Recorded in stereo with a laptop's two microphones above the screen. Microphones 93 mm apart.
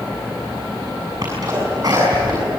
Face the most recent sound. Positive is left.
turn(degrees=-40)  # may be behind; listen again after turning